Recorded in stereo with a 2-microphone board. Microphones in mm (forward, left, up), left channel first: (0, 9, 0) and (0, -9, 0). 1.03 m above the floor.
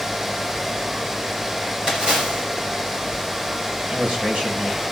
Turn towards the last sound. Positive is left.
turn(degrees=-75)  # may be behind; listen again after turning